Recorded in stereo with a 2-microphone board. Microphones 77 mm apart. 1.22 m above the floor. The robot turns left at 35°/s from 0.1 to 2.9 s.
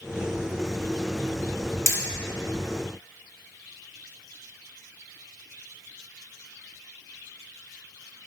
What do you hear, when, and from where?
1.9 s hammering: 45° left (ahead or behind), 2.5 m; by 2.0 s 50° left (ahead or behind), 2.5 m